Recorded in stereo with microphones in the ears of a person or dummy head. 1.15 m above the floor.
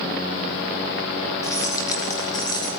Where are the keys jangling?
20° left (ahead or behind), 4 m; by 2.7 s 25° left (ahead or behind), 4.5 m.